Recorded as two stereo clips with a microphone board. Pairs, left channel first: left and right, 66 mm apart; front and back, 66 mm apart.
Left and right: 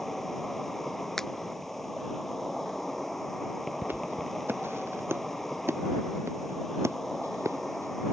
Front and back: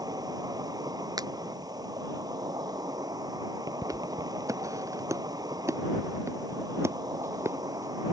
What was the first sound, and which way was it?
An insect, 175° left.